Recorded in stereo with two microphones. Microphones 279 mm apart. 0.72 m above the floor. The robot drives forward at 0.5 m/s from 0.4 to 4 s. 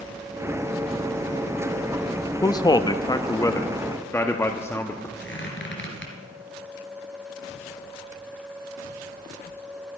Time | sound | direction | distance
2.4 | a man speaking | 15° left (ahead or behind) | 0.5 m
5.2 | a squeak | 40° left (ahead or behind) | 3 m